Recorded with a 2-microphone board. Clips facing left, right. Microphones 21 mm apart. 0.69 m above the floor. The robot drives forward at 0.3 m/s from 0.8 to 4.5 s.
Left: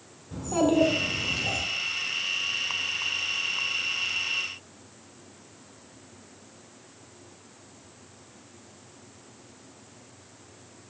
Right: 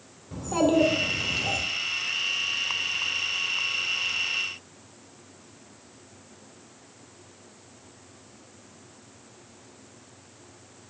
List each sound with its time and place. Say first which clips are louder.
0.3 s a child speaking: right 1 dB; 15° right (ahead or behind), 1.5 m